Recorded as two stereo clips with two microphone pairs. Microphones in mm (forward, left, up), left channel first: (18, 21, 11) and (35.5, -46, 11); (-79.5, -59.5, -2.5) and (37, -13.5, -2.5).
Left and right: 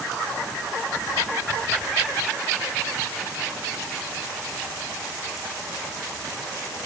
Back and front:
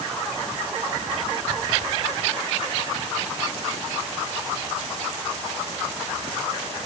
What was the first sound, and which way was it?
Only background noise.